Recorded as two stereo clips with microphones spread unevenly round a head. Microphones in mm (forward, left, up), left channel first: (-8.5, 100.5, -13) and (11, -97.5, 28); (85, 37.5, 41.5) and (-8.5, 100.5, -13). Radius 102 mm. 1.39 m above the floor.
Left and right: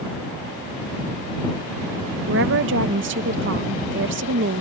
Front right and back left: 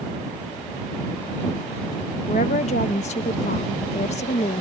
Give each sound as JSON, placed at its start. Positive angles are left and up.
{"t": 2.3, "sound": "a woman speaking", "azimuth_deg": -60}